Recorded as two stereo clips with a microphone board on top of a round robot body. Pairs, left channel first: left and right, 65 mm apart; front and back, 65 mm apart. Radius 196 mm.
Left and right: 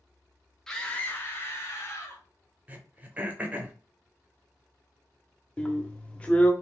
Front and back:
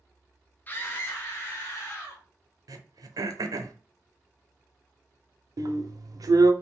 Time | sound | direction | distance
0.7 | a scream | 15° left | 0.9 m
2.7 | throat clearing | 160° right | 0.6 m
5.6 | a drill | 160° left | 0.6 m